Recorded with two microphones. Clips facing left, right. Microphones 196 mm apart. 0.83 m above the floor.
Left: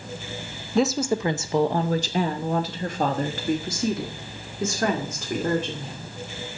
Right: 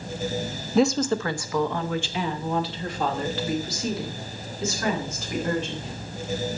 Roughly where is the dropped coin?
I don't hear a dropped coin.